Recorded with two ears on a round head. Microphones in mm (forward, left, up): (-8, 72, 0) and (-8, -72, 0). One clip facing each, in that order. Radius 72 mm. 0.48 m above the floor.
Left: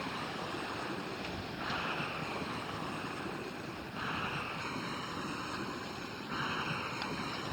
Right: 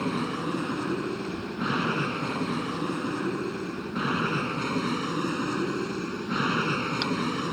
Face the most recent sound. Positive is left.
turn(degrees=-75)  # may be behind; listen again after turning